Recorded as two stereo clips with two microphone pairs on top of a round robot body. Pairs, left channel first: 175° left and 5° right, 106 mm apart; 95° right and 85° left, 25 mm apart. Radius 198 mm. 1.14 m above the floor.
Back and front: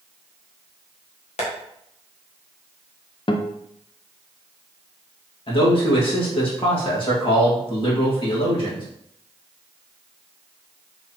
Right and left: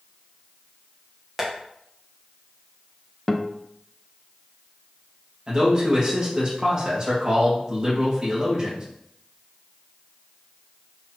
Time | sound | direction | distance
1.4 | tapping | 165° left | 1.4 m
3.3 | a guitar | 170° right | 0.7 m
5.5 | a man speaking | 140° left | 1.9 m